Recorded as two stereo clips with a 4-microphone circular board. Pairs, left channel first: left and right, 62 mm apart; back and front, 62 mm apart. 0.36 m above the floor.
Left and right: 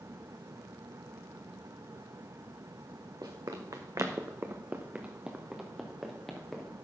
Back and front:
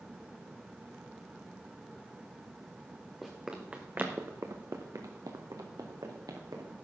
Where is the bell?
I don't hear a bell.